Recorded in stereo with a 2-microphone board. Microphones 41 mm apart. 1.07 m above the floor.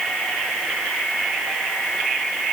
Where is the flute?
No flute in this recording.